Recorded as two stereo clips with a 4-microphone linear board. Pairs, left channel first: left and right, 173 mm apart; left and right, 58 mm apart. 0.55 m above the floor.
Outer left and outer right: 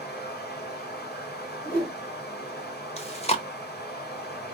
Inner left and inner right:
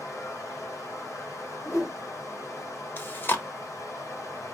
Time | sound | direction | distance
0.0 | running water | 70° left (ahead or behind) | 2 m
1.6 | a whoosh | 60° left (ahead or behind) | 3 m
3.0 | chewing | 35° left (ahead or behind) | 1.1 m